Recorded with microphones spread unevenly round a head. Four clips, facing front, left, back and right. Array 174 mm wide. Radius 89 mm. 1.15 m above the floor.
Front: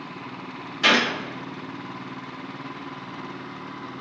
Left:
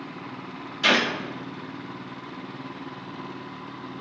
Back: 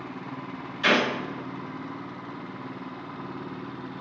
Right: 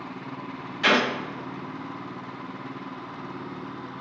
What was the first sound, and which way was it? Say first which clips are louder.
A gunshot: right 1 dB, front 1 dB; 25° right.